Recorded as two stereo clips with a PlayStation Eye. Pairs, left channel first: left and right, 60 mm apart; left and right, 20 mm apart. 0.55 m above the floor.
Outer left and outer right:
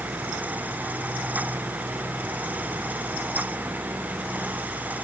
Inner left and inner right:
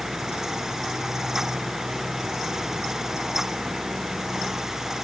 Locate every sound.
Only background noise.